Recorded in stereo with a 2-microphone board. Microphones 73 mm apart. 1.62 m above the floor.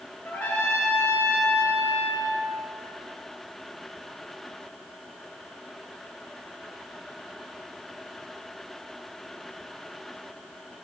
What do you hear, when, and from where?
0.2 s a trumpet: 30° left (ahead or behind), 4 m